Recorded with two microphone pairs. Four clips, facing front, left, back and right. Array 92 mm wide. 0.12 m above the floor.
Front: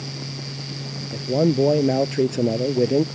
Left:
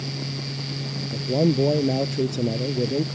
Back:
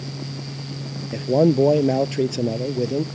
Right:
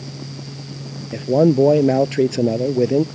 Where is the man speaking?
120° right; by 3.0 s 65° right.